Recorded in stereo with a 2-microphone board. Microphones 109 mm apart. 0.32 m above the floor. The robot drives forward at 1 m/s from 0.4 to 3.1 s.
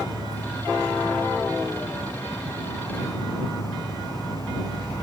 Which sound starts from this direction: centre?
An insect, at 0.0 s.